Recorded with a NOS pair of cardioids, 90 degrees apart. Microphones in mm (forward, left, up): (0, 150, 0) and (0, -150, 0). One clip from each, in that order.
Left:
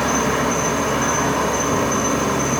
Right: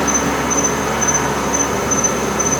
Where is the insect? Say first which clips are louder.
Right 2 dB; 35° right, 1.6 m.